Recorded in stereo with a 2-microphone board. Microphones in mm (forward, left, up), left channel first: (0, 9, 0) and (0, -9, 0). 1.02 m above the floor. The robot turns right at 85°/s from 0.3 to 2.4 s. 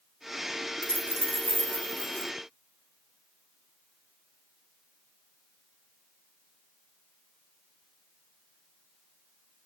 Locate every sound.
0.8 s a dropped coin: 50° right, 1.9 m; by 2.3 s 75° left, 1.9 m